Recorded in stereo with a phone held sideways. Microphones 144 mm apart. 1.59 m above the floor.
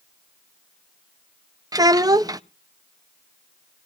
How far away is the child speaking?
About 0.5 m.